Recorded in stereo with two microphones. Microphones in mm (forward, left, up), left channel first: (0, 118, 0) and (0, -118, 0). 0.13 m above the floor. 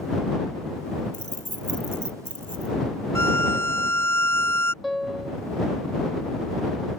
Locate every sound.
1.1 s keys jangling: 65° right (ahead or behind)
3.1 s a violin: 55° right (ahead or behind)
4.8 s a piano: centre (ahead or behind)